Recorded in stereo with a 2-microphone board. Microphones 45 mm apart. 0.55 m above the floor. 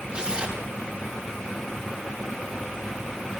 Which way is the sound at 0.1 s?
20° right (ahead or behind).